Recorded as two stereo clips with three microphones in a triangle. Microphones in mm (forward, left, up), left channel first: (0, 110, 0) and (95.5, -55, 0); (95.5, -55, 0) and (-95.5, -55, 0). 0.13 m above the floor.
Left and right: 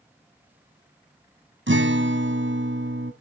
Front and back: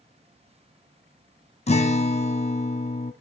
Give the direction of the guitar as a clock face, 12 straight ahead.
2 o'clock.